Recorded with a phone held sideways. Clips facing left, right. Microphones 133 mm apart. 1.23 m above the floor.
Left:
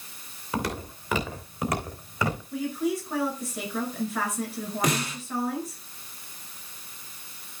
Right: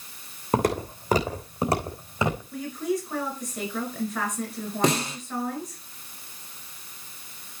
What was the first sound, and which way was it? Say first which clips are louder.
Footsteps: right 7 dB; 50° right (ahead or behind).